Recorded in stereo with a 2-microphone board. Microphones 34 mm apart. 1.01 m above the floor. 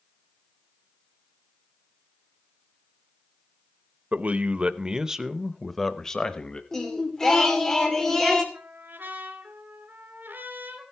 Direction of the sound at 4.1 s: 55° right (ahead or behind).